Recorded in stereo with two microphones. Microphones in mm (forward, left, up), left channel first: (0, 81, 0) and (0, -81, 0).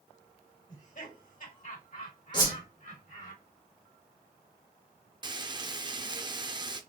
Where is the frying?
30° right (ahead or behind), 0.6 m.